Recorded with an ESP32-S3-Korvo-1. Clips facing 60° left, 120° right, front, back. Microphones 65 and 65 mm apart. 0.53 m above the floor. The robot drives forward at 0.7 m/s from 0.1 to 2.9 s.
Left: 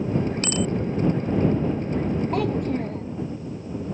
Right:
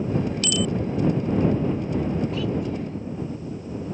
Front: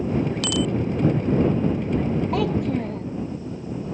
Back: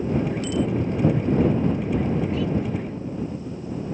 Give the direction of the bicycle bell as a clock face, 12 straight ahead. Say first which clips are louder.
Even, even; 12 o'clock.